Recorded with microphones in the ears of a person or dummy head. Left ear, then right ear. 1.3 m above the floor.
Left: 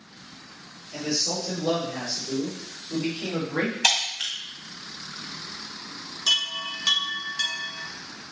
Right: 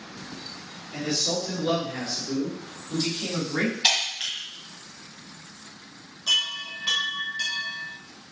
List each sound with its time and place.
0.9 s a man speaking: 10° left (ahead or behind), 4 m; by 3.7 s 15° right (ahead or behind), 4 m
3.8 s breaking glass: 30° left (ahead or behind), 1.9 m
6.3 s a chime: 45° left (ahead or behind), 1.4 m